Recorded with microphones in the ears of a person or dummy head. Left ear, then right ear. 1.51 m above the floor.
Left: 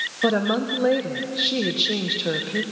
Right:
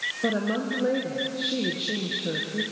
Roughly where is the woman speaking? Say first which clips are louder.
Left 8 dB; left.